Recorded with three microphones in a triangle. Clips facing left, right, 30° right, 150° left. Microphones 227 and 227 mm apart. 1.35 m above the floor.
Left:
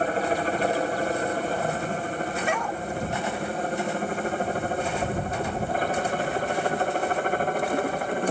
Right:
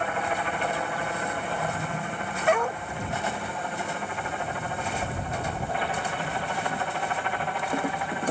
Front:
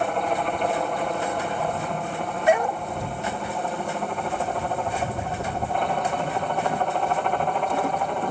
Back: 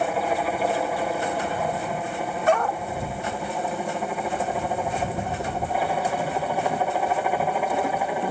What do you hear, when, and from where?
0.0 s a helicopter: 70° left
2.5 s a dog barking: 100° right